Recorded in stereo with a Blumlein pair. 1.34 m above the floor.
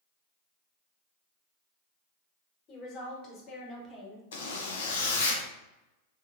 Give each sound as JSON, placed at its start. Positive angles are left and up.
{"t": 2.7, "sound": "a woman speaking", "azimuth_deg": 35, "distance_m": 1.4}
{"t": 4.3, "sound": "a zipper", "azimuth_deg": 60, "distance_m": 0.6}